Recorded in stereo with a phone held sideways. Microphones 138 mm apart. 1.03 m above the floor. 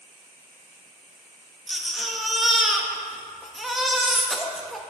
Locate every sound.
1.7 s a baby crying: centre (ahead or behind), 0.9 m